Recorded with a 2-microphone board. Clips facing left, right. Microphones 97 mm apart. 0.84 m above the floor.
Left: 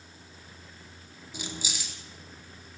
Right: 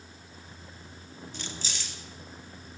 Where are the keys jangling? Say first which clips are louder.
Left 4 dB; 10° left (ahead or behind), 0.8 m.